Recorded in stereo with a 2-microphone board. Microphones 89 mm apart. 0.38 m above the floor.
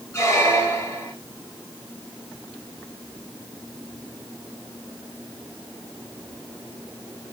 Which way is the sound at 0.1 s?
30° left (ahead or behind).